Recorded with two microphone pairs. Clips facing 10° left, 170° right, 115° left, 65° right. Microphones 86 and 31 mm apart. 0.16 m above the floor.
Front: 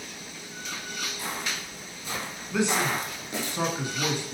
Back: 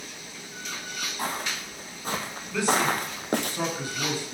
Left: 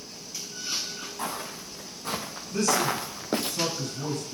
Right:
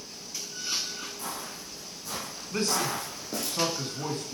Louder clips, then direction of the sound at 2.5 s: Back 1 dB, left 3 dB; 50° right.